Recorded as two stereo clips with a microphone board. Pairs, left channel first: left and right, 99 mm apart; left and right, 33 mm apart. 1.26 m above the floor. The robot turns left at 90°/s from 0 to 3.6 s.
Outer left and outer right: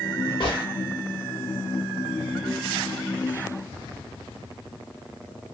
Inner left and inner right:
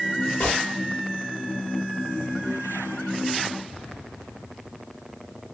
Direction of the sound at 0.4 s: 55° left (ahead or behind).